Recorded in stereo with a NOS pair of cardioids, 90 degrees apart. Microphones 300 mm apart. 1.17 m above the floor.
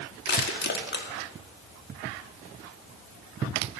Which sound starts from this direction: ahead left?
Crushing, at 0.3 s.